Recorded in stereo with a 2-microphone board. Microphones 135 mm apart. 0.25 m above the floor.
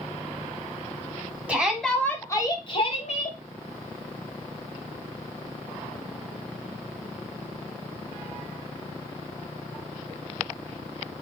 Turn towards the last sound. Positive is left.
turn(degrees=60)  # may be behind; listen again after turning